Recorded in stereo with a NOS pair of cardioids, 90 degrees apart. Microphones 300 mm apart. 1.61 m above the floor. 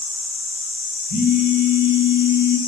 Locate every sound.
1.1 s a phone buzzing: 35° left, 1.8 m